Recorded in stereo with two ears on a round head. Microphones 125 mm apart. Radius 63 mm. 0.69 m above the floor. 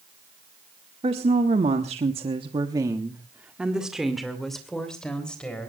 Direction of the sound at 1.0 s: 45° right (ahead or behind).